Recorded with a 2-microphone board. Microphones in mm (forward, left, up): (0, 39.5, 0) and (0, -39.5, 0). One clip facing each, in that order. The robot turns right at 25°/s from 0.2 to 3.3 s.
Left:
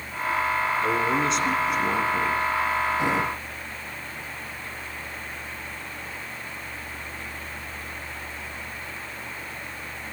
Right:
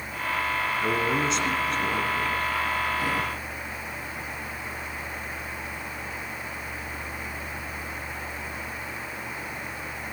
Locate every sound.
0.8 s a man speaking: 15° right, 2.5 m; by 2.4 s 30° left, 2.5 m